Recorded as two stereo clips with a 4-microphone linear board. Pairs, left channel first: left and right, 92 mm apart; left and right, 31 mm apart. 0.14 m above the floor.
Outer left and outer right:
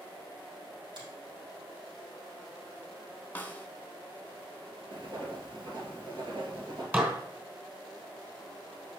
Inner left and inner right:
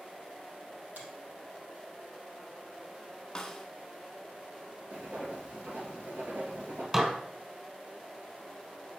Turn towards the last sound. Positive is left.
turn(degrees=-20)  # may be behind; listen again after turning